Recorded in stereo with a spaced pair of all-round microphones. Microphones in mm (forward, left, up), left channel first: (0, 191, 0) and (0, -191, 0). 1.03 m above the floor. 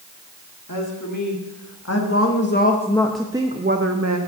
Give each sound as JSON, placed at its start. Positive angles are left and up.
{"t": 0.7, "sound": "a woman speaking", "side_deg": 55, "distance_m": 1.9}